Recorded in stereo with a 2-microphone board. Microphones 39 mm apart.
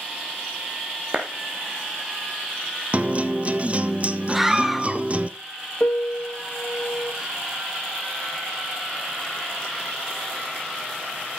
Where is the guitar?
35° right (ahead or behind), 0.7 m.